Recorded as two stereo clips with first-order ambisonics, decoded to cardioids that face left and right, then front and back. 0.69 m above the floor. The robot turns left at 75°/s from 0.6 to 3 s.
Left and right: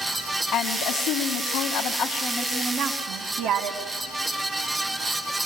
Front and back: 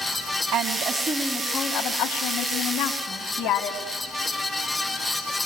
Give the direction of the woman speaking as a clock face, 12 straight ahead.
7 o'clock.